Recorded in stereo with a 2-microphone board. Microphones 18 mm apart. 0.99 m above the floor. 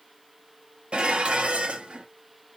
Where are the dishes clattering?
85° right, 0.9 m.